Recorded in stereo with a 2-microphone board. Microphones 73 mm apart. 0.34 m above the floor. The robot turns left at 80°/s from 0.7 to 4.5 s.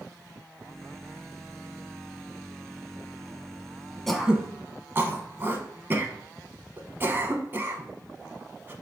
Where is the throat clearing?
5° left (ahead or behind), 0.6 m; by 8.7 s 30° right (ahead or behind), 0.6 m.